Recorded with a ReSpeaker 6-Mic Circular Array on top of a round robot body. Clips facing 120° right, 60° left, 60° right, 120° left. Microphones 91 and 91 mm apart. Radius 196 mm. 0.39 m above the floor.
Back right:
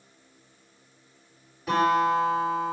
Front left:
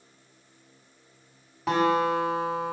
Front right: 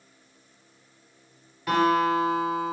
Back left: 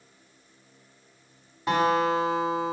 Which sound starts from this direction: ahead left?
A guitar, at 1.7 s.